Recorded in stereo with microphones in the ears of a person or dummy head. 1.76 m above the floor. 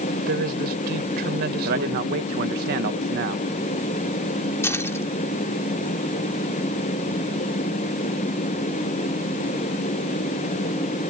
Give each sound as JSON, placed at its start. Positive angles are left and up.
{"t": 0.3, "sound": "a woman speaking", "side_deg": -55}
{"t": 1.6, "sound": "a man speaking", "side_deg": -50}
{"t": 4.6, "sound": "keys jangling", "side_deg": 15}